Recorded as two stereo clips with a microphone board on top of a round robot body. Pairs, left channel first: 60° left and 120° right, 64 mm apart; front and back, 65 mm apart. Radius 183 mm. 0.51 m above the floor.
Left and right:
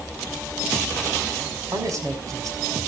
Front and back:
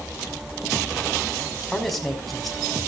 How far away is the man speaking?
About 5 m.